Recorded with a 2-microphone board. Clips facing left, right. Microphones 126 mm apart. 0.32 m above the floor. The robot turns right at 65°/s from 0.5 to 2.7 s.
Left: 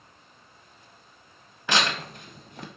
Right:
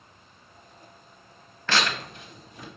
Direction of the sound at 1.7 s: 15° left (ahead or behind).